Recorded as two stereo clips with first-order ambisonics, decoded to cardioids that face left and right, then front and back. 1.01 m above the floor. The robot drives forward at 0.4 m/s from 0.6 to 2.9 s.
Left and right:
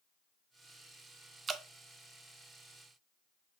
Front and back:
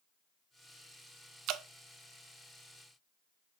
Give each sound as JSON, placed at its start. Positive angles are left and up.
{"t": 1.5, "sound": "dripping", "azimuth_deg": -155, "distance_m": 0.5}